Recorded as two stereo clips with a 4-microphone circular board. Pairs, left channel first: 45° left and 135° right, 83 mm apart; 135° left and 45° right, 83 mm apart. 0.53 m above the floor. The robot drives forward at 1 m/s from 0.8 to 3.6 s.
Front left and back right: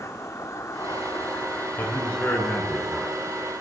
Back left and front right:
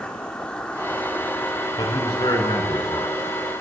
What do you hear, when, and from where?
0.0 s an insect: 65° left, 2 m; by 3.6 s 155° left, 3 m
1.8 s a man speaking: 110° left, 6 m; by 3.1 s 120° left, 6.5 m